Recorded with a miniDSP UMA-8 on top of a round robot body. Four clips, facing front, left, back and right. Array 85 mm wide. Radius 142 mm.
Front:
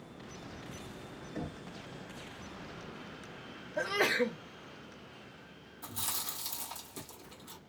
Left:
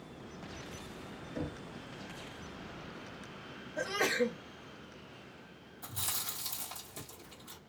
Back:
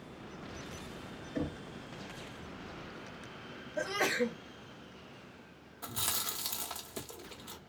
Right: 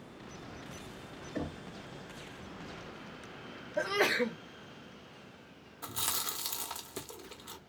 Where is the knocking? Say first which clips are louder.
Right 2 dB, back 5 dB; 110° right, 1.5 m.